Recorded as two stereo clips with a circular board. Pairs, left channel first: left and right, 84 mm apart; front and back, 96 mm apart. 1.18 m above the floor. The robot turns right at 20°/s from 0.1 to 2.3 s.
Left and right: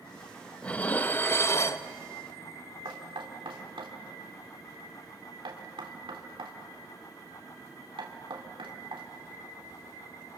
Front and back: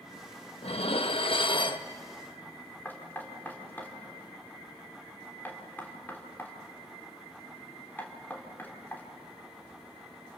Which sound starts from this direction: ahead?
Dishes clattering, at 0.6 s.